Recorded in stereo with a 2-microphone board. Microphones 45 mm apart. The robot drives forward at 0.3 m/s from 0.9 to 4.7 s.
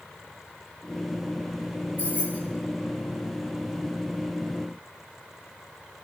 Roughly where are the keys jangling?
Right.